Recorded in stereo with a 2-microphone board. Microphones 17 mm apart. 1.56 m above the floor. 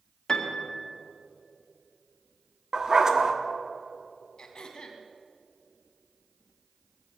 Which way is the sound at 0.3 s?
40° left (ahead or behind).